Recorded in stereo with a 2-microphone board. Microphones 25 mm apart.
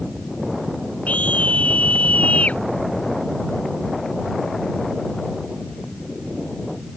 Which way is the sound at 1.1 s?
80° left.